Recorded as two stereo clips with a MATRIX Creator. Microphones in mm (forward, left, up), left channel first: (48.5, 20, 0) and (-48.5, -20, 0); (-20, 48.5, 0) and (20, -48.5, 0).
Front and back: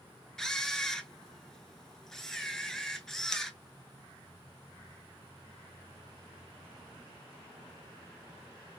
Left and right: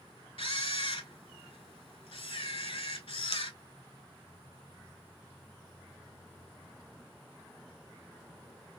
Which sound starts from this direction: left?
A camera shutter, at 0.4 s.